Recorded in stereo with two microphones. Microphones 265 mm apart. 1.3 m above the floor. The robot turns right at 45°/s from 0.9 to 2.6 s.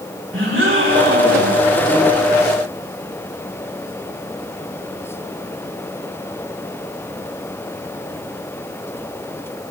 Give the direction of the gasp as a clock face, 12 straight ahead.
2 o'clock.